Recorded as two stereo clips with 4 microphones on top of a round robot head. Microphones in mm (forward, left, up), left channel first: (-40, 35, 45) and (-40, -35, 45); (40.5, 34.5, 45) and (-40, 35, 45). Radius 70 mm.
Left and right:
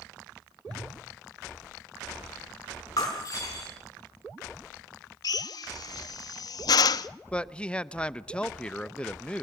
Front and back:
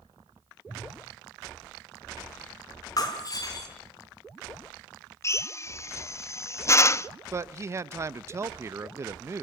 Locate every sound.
0.7 s a whoosh: 110° right, 7.5 m
3.0 s breaking glass: 40° left, 4.5 m
5.2 s a drill: 55° left, 0.6 m
7.3 s a man speaking: 155° left, 0.7 m